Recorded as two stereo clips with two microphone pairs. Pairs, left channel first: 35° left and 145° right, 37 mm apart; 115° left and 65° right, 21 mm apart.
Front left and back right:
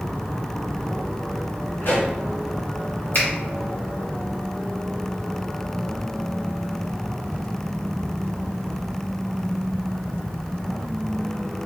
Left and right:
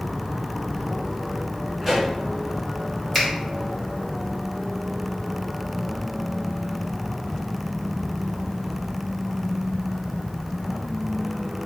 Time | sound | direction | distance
1.8 | a pop | 30° left | 2.0 m
3.1 | a finger snap | 45° left | 1.6 m